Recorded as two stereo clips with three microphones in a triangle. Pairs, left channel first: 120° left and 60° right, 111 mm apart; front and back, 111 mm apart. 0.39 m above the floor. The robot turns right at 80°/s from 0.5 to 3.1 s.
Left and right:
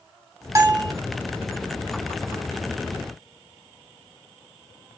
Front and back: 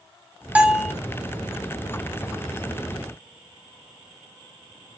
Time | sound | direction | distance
0.6 | a bell | 110° right | 1.2 m